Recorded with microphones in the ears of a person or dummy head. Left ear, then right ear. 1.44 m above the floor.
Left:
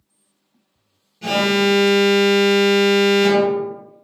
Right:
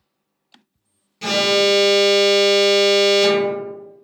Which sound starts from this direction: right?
An alarm, at 1.2 s.